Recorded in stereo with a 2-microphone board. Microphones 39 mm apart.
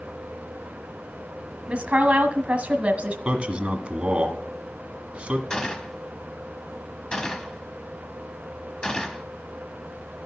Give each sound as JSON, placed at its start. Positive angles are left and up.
{"t": 1.7, "sound": "a woman speaking", "side_deg": -35, "distance_m": 1.4}
{"t": 3.2, "sound": "a man speaking", "side_deg": -30, "distance_m": 1.7}
{"t": 5.5, "sound": "a gunshot", "side_deg": 20, "distance_m": 1.0}